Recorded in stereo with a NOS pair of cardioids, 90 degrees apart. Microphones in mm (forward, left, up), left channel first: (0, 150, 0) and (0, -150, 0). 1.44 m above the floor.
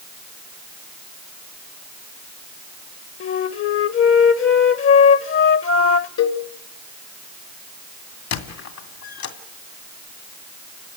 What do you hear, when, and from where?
3.2 s a flute: 45° left, 1.2 m
6.2 s a cowbell: 65° left, 3 m
8.3 s a squeak: 65° left, 2.5 m